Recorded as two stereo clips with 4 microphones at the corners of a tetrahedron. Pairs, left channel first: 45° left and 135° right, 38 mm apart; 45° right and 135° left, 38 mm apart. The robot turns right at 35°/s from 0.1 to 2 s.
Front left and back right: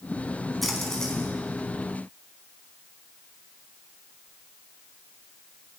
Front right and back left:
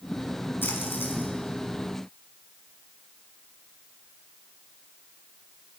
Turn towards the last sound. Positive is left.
turn(degrees=5)